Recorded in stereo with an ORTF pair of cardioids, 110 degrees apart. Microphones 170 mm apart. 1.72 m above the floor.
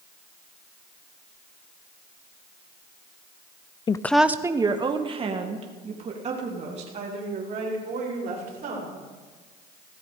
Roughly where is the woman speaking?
Ahead left.